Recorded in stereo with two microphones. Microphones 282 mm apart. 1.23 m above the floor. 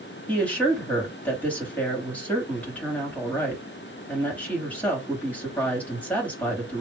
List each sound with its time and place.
0.3 s a woman speaking: 5° left (ahead or behind), 2 m